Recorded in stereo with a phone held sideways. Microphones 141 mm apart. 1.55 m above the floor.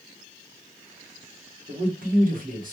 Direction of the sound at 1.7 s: 65° right (ahead or behind).